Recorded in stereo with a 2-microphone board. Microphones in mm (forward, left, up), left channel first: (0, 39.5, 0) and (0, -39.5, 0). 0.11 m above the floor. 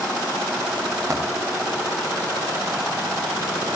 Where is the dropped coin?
35° right (ahead or behind), 9 m.